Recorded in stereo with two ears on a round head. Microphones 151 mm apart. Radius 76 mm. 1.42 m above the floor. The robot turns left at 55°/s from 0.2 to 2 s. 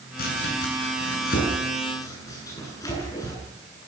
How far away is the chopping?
About 9.5 m.